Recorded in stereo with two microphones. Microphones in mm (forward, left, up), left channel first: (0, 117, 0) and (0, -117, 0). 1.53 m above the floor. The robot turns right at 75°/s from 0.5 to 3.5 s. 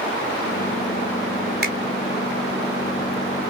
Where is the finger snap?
45° right (ahead or behind), 0.7 m; by 1.8 s 35° right (ahead or behind), 0.7 m.